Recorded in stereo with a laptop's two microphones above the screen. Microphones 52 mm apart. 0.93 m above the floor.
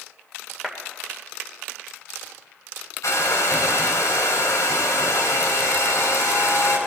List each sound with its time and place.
0.6 s a clap: centre (ahead or behind), 2.5 m
3.0 s a hair dryer: 80° left, 4.5 m